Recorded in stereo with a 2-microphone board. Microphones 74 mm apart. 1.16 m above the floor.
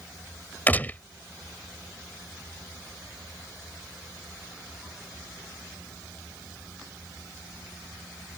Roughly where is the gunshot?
Left.